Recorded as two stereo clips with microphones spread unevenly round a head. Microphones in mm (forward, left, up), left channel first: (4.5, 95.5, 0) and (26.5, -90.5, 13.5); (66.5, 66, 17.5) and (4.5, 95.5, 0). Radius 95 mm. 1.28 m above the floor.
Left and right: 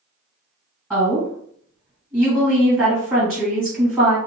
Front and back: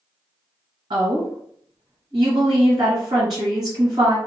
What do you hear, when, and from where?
0.9 s a woman speaking: 165° right, 1.6 m